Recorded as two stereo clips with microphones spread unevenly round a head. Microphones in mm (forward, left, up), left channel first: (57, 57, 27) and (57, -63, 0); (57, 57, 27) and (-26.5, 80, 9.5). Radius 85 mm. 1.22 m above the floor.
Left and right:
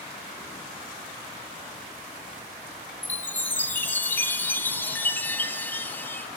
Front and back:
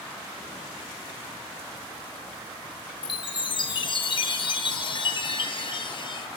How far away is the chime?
About 0.9 m.